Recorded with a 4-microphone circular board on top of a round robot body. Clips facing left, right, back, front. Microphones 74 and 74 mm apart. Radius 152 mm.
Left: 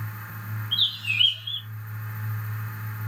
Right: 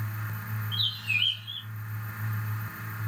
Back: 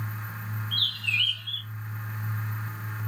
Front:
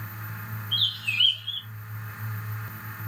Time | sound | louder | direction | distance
0.7 | a bird | left 4 dB, even | 75° left | 0.7 m